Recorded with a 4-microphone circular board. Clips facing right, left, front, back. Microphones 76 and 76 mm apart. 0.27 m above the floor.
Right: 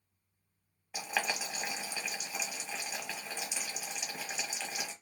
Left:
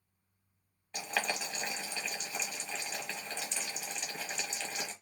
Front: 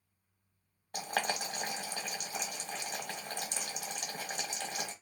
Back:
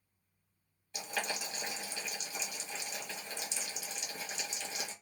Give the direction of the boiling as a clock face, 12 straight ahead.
12 o'clock.